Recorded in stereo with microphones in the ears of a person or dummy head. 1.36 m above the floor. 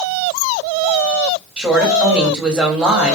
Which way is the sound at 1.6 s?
5° right (ahead or behind).